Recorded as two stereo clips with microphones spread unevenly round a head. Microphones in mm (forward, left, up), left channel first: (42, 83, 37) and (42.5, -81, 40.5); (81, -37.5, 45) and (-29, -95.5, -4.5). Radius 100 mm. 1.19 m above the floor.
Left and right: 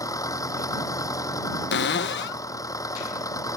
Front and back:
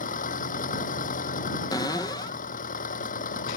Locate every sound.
0.0 s an engine running: 20° left
1.7 s a cupboard door: 105° left